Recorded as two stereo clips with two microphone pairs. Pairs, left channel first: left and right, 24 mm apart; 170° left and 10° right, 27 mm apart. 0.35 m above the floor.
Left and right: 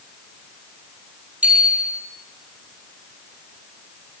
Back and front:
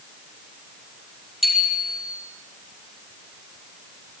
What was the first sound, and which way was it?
A bicycle bell, 90° right.